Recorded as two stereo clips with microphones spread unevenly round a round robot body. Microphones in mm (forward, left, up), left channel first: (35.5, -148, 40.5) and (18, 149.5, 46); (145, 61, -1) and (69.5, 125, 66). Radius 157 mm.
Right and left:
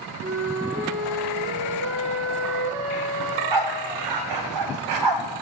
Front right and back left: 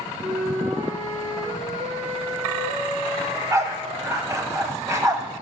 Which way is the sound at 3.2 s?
85° left.